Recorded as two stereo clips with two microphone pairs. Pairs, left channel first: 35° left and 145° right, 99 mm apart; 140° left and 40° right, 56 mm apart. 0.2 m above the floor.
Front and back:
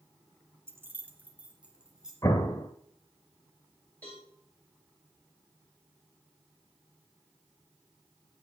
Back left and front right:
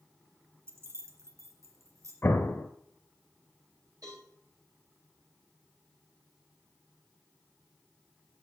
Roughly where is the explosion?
Left.